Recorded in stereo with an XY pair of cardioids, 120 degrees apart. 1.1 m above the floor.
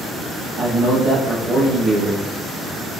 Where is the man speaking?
35° right, 0.7 m.